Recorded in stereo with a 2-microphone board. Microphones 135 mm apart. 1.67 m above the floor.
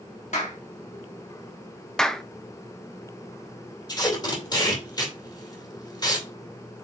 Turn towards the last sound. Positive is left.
turn(degrees=30)  # may be behind; listen again after turning